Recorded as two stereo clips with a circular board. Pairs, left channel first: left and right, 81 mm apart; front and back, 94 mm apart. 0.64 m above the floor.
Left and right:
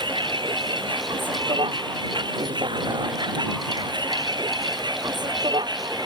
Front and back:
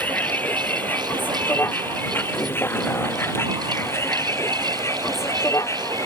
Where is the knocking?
I don't hear knocking.